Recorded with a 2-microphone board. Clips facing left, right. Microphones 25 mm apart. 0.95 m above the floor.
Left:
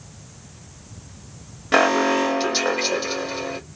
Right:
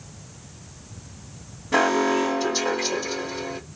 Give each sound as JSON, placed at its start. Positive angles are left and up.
{"t": 1.7, "sound": "an alarm", "side_deg": 70, "distance_m": 2.0}